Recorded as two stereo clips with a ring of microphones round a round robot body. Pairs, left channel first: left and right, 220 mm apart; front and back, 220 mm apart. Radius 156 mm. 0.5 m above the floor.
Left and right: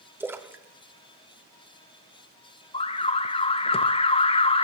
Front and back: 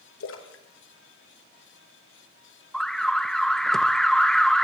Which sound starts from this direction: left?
An alarm, at 2.7 s.